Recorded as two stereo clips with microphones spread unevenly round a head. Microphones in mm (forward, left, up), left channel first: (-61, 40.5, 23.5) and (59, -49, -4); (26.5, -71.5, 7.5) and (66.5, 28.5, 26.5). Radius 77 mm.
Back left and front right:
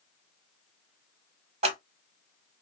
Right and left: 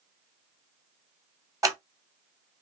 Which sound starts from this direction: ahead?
Scissors, at 1.6 s.